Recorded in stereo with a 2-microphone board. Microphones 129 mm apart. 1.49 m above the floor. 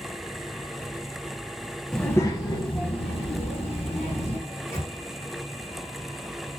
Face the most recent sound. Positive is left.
turn(degrees=25)  # may be behind; listen again after turning